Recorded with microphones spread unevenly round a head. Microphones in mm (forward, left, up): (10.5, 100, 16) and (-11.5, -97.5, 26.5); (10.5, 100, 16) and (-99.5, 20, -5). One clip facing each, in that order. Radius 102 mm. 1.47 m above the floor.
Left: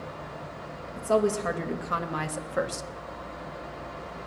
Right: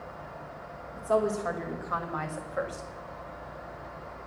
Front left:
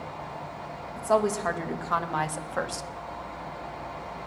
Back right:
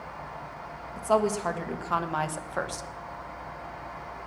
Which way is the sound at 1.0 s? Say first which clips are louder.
Left 3 dB, even; 140° left.